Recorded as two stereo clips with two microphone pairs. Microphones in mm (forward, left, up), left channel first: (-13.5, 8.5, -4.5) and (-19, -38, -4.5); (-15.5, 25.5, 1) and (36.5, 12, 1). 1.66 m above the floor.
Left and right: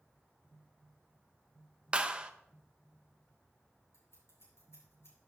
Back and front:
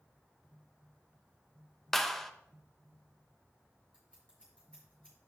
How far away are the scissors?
About 5 m.